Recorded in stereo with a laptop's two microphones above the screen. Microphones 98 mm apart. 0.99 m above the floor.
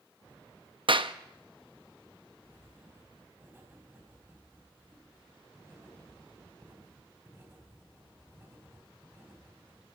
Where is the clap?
60° right (ahead or behind), 1.0 m.